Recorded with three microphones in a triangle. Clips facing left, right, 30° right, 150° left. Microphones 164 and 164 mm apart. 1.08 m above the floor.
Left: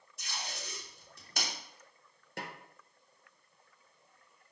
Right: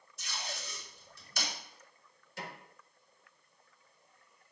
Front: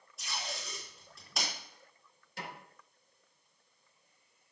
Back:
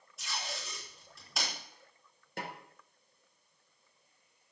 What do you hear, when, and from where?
0.2 s tape being pulled: 60° left, 3.5 m
2.4 s a snare drum: 115° left, 1.5 m